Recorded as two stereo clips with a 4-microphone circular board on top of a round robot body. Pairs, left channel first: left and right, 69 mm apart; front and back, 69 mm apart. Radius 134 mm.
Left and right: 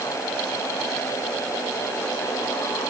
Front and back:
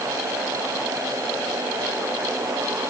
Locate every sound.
Only background noise.